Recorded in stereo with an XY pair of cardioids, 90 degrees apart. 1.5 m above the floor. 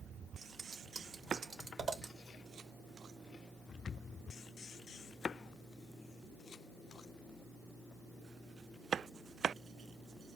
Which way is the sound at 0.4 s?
55° right.